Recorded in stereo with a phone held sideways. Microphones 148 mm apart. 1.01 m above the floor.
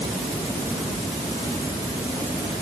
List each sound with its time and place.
Only background noise.